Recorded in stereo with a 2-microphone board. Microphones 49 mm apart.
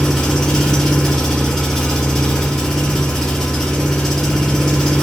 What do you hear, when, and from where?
0.0 s an engine running: 5° left (ahead or behind), 1.5 m